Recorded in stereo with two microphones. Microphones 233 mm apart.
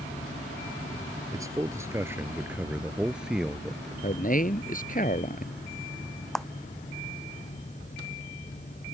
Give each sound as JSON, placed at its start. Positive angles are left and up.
{"t": 1.3, "sound": "a man speaking", "side_deg": -15}
{"t": 4.0, "sound": "a man speaking", "side_deg": 35}
{"t": 6.3, "sound": "a clap", "side_deg": 0}